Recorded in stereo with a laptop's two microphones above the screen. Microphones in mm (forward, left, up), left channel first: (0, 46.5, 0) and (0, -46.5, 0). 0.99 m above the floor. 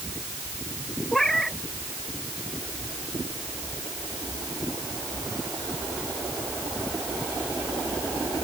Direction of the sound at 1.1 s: 5° left (ahead or behind).